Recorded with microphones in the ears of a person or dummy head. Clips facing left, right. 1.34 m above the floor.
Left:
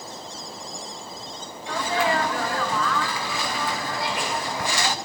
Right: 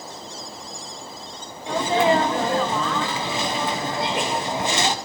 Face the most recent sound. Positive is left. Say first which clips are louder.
# right 5 dB
turn(degrees=-20)  # may be behind; listen again after turning